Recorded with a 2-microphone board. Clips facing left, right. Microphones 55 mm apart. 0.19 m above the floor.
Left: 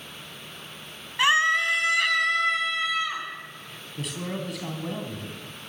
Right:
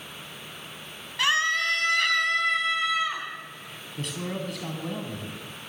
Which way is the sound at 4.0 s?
5° left (ahead or behind).